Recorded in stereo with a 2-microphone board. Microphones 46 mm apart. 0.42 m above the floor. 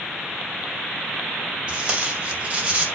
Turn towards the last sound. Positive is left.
turn(degrees=-25)  # may be behind; listen again after turning